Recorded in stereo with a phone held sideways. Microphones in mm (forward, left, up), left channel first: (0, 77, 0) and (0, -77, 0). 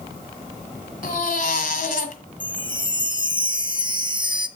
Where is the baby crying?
65° left (ahead or behind), 1.6 m.